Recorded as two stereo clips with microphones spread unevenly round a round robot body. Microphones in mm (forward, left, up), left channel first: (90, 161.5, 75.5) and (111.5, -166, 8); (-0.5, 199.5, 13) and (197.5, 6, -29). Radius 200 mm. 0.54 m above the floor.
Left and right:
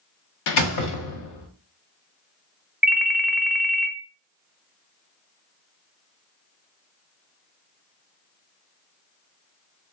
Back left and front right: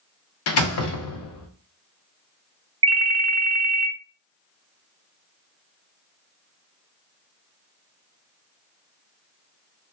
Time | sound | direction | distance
0.5 | a door slam | 125° left | 0.5 m
2.8 | a ringtone | straight ahead | 0.6 m